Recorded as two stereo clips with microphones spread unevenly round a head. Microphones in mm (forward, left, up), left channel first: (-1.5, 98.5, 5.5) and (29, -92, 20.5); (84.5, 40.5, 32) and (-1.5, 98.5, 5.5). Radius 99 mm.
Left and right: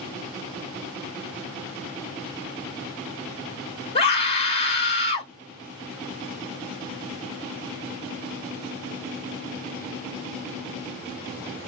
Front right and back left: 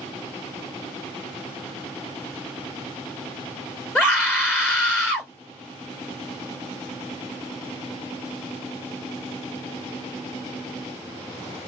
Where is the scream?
40° left, 3.5 m.